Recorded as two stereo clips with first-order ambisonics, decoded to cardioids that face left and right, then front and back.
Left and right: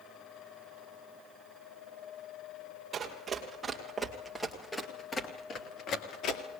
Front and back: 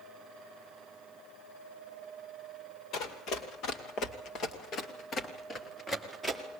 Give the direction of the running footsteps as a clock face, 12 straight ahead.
1 o'clock.